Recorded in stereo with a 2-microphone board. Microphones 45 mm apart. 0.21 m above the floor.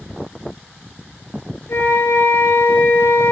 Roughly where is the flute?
Left.